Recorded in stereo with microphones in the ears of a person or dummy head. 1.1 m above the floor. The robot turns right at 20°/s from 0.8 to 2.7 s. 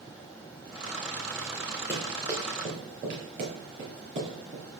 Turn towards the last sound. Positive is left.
turn(degrees=-50)  # may be behind; listen again after turning